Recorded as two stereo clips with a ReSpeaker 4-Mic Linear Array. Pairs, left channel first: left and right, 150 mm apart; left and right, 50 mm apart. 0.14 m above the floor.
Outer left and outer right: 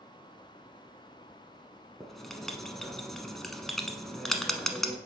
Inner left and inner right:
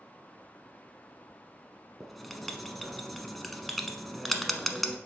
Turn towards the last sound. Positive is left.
turn(degrees=0)  # may be behind; listen again after turning